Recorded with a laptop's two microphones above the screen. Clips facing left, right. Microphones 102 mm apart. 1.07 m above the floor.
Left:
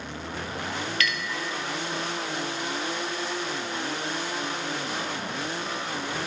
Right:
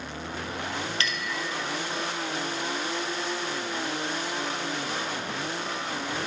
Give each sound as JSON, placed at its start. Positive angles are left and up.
{"t": 1.0, "sound": "a clink", "side_deg": -30, "distance_m": 0.5}